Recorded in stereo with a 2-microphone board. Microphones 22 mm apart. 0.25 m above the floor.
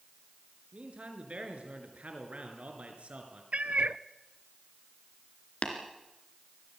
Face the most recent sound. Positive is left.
turn(degrees=55)  # may be behind; listen again after turning